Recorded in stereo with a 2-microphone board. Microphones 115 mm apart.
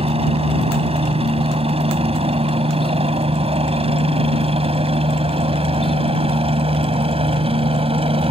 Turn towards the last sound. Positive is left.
turn(degrees=-55)  # may be behind; listen again after turning